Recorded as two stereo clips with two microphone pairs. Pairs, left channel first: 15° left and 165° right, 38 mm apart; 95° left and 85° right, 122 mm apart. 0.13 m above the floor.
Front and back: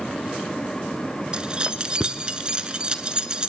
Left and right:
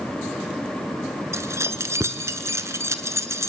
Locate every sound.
1.3 s keys jangling: 130° right, 1.3 m